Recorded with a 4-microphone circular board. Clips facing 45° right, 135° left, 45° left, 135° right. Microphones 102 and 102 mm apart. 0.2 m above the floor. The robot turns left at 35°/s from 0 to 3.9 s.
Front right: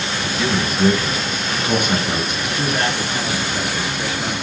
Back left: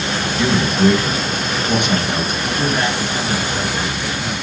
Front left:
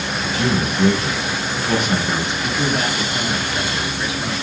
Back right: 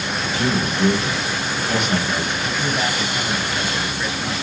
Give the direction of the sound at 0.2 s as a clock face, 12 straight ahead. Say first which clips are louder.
Back left 3 dB, front left 1 dB; 10 o'clock.